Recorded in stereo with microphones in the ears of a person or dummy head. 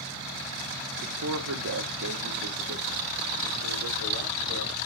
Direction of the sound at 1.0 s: 60° right (ahead or behind).